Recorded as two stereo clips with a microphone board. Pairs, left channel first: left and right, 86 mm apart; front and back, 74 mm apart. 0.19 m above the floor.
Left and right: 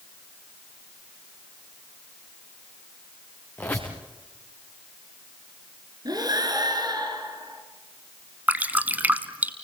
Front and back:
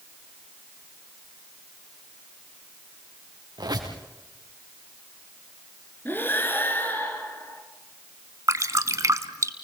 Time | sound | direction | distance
3.6 | a squeak | 160° left | 4 m
6.0 | breathing | 60° right | 3 m
8.5 | dripping | 155° right | 1.1 m